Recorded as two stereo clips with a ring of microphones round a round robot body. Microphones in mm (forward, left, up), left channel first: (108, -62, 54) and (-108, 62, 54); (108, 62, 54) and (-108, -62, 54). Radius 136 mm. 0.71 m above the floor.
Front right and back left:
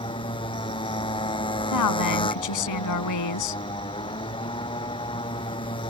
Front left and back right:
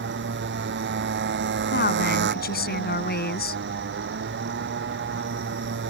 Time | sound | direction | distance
0.0 | a motorcycle | 100° right | ?
1.7 | a woman speaking | 25° right | ?